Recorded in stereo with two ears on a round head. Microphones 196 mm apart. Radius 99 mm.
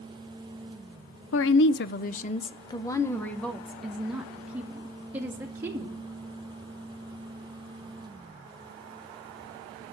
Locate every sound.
1.3 s a woman speaking: 60° left (ahead or behind), 0.7 m; by 6.0 s 10° right (ahead or behind), 2.5 m